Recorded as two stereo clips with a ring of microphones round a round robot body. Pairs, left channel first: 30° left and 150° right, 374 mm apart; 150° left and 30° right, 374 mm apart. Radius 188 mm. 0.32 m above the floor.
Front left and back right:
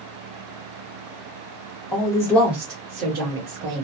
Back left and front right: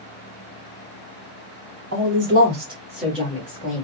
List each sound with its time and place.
1.9 s a man speaking: 35° right, 1.4 m; by 3.8 s 155° right, 1.4 m